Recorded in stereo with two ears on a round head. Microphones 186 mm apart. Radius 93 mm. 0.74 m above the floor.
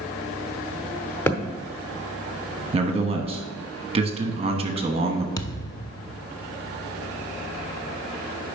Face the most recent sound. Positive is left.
turn(degrees=20)  # may be behind; listen again after turning